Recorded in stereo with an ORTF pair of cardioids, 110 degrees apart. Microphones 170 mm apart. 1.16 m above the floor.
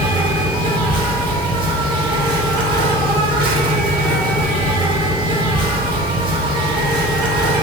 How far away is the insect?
About 1.5 m.